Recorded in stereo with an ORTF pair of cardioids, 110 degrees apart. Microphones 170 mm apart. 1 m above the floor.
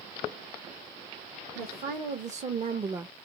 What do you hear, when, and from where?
1.6 s a woman speaking: 60° right, 1.2 m; by 3.1 s 15° right, 0.5 m